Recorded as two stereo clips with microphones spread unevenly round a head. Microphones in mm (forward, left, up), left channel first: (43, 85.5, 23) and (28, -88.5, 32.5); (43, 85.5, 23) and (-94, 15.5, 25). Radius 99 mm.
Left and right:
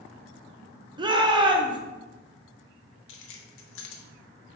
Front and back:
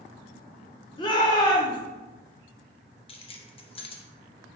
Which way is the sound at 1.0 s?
30° right.